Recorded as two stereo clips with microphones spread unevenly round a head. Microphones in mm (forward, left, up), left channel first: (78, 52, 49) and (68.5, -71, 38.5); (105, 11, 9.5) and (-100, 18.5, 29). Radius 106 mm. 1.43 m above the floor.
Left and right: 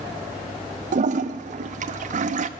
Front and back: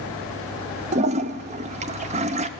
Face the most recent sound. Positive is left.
turn(degrees=-120)